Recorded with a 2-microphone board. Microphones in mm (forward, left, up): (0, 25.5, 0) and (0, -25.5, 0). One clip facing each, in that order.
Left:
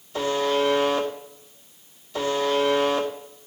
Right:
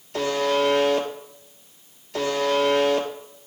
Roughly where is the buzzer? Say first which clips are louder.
Right 1 dB; right.